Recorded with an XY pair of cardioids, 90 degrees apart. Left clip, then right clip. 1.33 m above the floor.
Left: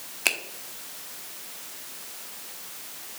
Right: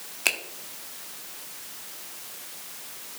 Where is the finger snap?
Straight ahead, 1.0 m.